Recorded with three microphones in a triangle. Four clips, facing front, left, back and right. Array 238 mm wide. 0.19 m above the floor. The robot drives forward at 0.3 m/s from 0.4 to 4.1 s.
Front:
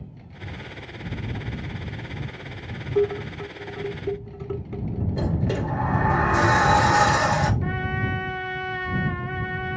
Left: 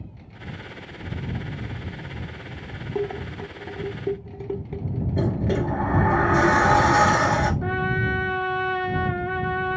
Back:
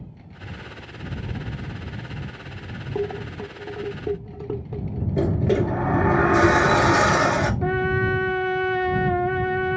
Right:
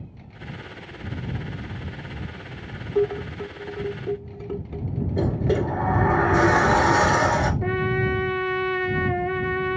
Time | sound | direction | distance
3.0 | dishes clattering | 140° left | 0.7 m
5.2 | a sliding door | straight behind | 1.3 m
7.6 | a trumpet | 160° right | 0.9 m